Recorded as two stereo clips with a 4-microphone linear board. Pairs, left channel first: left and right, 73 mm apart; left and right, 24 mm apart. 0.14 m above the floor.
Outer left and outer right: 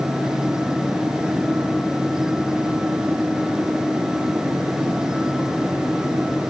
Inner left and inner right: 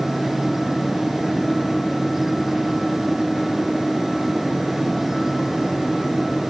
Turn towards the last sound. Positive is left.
No sound to turn to.